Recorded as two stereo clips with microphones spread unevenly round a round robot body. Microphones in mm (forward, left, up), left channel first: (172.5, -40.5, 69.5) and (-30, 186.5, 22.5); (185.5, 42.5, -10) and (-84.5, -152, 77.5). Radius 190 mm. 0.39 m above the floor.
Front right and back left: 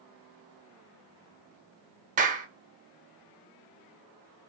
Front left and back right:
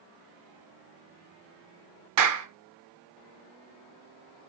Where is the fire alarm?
I don't hear a fire alarm.